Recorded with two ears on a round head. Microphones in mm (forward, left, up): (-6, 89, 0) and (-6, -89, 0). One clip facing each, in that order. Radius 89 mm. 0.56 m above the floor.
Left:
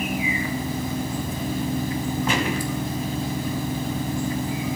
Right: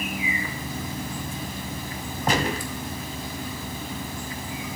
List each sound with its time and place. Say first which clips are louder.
2.3 s a gunshot: right 3 dB; 35° right (ahead or behind), 2.5 m